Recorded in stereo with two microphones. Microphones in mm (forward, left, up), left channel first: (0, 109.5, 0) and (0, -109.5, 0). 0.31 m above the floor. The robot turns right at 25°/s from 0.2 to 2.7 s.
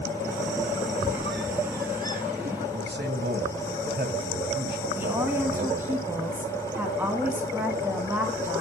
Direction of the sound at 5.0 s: 10° right (ahead or behind).